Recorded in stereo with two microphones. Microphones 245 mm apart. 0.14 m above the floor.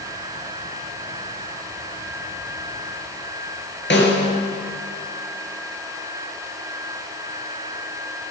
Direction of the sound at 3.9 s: 50° left (ahead or behind).